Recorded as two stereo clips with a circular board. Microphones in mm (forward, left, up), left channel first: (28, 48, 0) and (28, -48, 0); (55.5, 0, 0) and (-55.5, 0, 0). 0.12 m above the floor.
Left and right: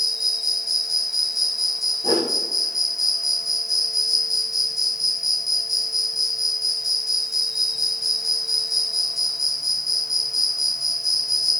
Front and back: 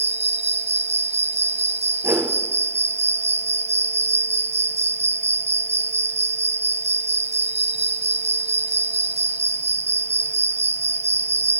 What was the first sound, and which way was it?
An insect, 175° right.